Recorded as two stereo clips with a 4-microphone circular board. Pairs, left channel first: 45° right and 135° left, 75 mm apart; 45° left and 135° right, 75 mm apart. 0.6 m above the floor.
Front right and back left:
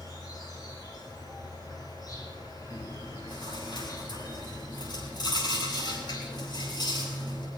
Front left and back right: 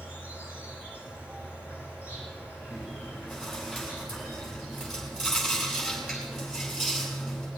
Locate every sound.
0.0 s an insect: 70° right, 7.5 m
2.7 s chewing: 50° right, 7 m